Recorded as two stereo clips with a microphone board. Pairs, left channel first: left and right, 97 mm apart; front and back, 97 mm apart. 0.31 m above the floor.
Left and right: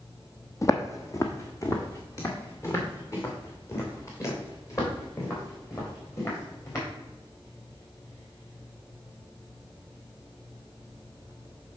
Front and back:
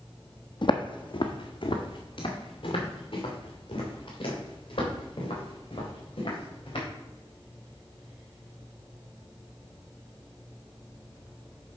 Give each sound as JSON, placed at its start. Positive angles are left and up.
{"t": 0.6, "sound": "footsteps", "azimuth_deg": 35, "distance_m": 0.9}